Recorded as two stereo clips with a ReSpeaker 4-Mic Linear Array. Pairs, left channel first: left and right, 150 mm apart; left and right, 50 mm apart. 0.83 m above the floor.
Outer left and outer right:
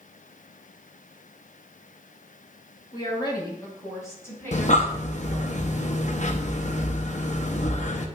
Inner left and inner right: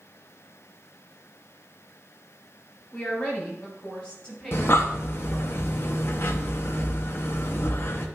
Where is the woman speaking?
35° left (ahead or behind), 4 m; by 5.5 s 10° left (ahead or behind), 7 m.